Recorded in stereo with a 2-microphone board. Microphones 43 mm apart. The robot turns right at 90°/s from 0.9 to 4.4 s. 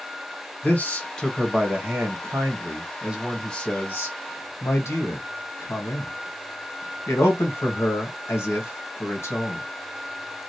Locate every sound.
0.6 s a man speaking: 135° left, 1.2 m; by 9.7 s 90° left, 1.2 m